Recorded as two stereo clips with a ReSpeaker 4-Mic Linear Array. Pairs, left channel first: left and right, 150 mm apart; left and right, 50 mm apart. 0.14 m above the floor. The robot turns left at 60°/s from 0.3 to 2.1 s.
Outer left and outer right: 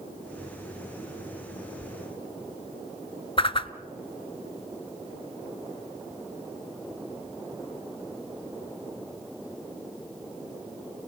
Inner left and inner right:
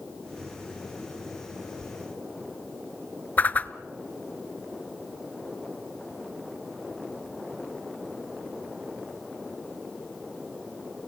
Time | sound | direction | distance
3.4 | a whoosh | 35° left (ahead or behind) | 0.8 m